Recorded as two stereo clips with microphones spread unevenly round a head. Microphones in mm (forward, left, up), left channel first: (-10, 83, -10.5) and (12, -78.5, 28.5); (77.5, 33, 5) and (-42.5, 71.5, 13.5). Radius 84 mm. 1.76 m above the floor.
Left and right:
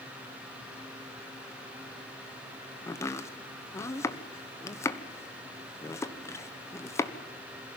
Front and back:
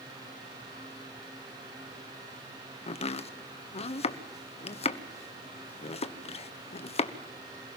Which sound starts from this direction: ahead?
Chopping, at 2.9 s.